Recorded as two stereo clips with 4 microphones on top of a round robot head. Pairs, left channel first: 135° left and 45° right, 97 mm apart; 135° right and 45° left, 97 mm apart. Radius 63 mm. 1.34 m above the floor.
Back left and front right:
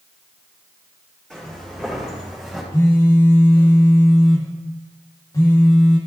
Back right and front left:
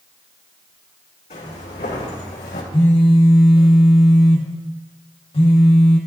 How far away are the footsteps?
About 4.5 m.